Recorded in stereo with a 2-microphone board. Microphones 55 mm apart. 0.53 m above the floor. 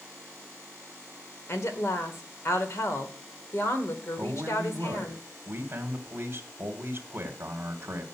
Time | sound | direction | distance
1.5 | a woman speaking | 60° left (ahead or behind) | 1.8 m
4.2 | a man speaking | 40° right (ahead or behind) | 1.4 m